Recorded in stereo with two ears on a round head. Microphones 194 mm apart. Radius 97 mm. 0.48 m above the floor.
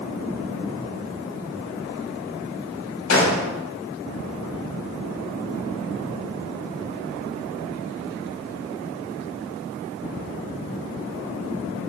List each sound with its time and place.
3.1 s a gunshot: 70° left (ahead or behind), 0.9 m